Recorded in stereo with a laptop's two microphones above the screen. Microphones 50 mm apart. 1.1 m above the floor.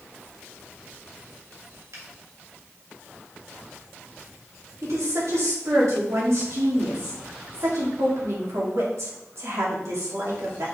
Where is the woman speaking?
80° right, 2.5 m.